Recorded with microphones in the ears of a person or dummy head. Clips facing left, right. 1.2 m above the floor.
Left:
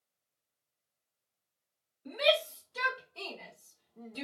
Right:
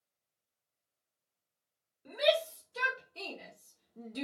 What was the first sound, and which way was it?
A shout, 20° right (ahead or behind).